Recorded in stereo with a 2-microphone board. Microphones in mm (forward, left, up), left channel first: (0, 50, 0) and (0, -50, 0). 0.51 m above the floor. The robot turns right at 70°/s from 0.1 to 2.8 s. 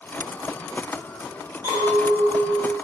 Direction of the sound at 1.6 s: 55° right.